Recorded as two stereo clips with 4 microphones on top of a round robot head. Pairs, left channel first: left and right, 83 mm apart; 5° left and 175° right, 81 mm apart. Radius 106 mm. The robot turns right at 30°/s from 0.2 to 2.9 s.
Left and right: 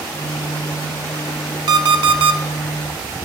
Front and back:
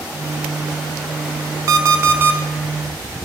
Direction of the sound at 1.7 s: 125° right.